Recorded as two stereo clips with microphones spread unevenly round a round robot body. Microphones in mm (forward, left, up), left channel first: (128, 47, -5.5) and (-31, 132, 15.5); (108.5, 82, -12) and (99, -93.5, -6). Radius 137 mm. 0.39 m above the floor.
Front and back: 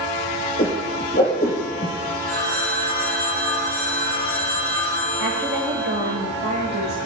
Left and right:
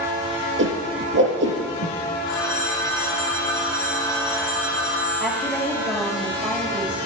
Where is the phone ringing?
165° left, 6.5 m.